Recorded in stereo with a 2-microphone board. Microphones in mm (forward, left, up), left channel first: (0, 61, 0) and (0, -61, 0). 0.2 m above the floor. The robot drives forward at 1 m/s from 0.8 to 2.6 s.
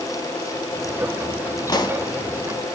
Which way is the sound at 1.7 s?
35° left (ahead or behind).